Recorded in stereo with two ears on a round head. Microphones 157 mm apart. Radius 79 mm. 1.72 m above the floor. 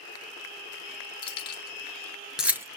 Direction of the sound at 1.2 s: 30° left (ahead or behind).